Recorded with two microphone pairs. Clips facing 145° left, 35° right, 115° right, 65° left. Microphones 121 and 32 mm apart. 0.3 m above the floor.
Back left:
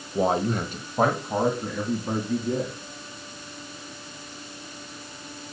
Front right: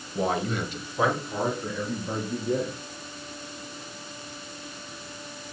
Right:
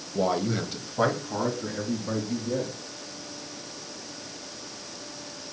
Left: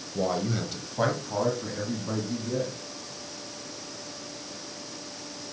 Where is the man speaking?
170° right, 1.1 m; by 2.7 s 155° left, 3 m.